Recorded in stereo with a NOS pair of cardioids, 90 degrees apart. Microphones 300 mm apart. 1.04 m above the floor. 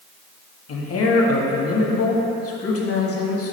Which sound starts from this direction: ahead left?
A man speaking, at 0.7 s.